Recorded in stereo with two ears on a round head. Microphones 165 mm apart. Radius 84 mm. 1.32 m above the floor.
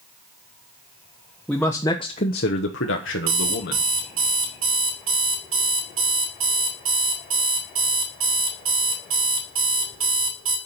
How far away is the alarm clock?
About 4.5 m.